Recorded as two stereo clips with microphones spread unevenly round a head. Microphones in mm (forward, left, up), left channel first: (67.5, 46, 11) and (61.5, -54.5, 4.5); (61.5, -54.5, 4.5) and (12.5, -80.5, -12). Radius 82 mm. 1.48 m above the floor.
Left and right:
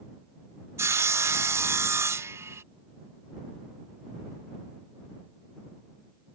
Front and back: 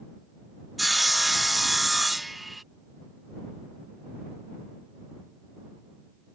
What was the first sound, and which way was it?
Sawing, 40° right.